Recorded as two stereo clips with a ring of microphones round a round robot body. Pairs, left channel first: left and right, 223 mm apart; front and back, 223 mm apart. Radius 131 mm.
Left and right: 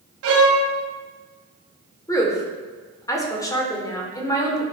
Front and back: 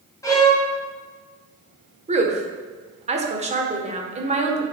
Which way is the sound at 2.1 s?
150° left.